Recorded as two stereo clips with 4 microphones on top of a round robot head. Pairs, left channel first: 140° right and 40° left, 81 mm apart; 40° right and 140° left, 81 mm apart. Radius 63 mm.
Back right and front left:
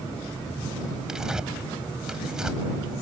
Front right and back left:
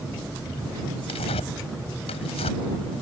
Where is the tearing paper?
40° right.